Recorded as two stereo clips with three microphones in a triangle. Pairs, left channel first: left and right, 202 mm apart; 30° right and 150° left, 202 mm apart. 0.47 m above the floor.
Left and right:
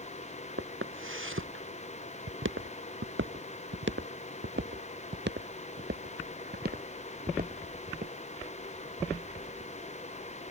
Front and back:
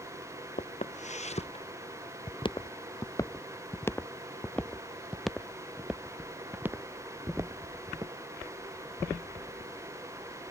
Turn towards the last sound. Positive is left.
turn(degrees=-140)